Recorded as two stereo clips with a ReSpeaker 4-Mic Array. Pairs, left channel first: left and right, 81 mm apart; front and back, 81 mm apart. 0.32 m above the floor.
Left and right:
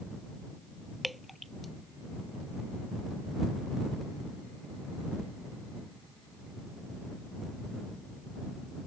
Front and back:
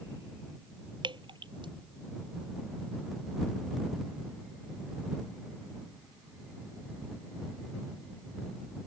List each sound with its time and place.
1.0 s dripping: straight behind